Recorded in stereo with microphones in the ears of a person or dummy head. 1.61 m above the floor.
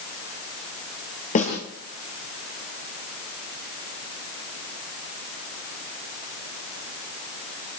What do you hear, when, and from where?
1.4 s a snare drum: 45° left (ahead or behind), 8 m